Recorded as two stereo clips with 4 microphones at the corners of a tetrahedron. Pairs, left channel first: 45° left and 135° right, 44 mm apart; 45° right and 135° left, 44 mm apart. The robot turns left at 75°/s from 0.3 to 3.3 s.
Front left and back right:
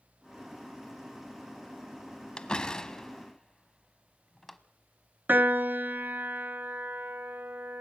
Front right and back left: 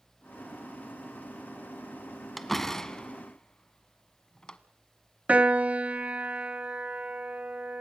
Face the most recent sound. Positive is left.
turn(degrees=-170)